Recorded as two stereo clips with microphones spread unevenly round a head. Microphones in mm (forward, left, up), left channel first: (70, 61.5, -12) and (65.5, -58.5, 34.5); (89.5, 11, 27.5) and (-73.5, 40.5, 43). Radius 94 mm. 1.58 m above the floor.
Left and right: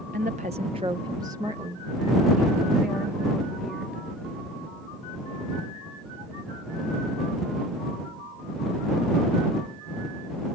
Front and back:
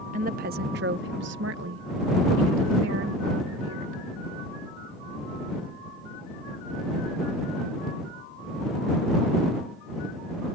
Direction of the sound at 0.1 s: 140° right.